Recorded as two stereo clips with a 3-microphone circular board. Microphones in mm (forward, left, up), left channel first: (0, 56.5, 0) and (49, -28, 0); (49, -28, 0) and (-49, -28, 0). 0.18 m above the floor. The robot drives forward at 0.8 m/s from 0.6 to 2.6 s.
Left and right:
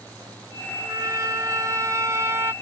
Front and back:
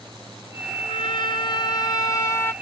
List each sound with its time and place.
0.8 s a trumpet: 10° right; by 2.5 s 30° right